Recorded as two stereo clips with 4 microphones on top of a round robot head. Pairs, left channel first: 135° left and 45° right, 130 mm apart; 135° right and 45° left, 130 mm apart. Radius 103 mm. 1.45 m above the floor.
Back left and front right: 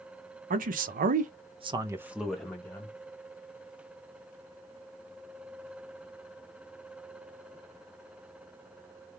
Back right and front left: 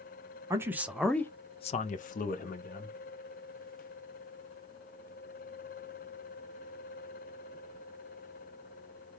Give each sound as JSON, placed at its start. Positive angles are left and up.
{"t": 0.5, "sound": "a man speaking", "azimuth_deg": -25, "distance_m": 0.8}